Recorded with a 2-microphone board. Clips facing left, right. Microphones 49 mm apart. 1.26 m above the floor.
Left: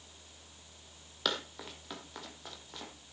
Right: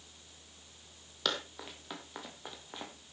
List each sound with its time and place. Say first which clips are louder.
1.2 s running footsteps: even; 5° left (ahead or behind), 2.5 m; by 2.9 s 25° right (ahead or behind), 2.5 m